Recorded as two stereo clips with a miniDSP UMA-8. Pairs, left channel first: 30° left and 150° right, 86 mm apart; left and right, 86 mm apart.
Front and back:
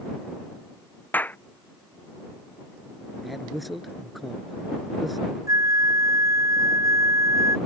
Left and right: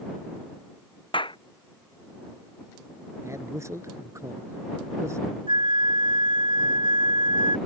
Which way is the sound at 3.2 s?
60° right.